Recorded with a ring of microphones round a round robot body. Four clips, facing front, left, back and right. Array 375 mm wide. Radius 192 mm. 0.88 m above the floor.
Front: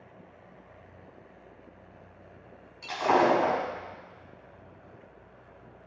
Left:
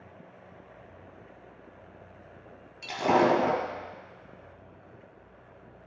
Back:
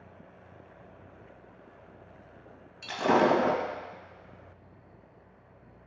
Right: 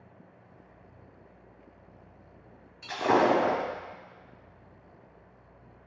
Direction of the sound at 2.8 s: 120° left.